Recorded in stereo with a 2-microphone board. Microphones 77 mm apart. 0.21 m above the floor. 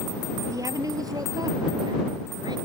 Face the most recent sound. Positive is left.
turn(degrees=-65)  # may be behind; listen again after turning